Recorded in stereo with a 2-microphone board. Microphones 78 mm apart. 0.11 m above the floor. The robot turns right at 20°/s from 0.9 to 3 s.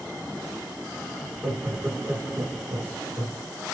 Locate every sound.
1.2 s laughter: 20° right (ahead or behind), 1.1 m